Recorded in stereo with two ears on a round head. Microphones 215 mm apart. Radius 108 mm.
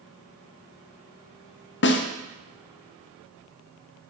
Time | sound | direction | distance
1.8 | a snare drum | 50° left (ahead or behind) | 0.7 m